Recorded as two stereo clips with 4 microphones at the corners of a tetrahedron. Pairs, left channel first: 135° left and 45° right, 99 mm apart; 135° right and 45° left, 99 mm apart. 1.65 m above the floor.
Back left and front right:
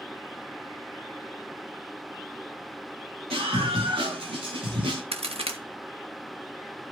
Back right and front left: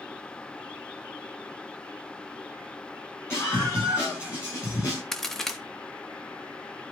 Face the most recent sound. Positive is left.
turn(degrees=-50)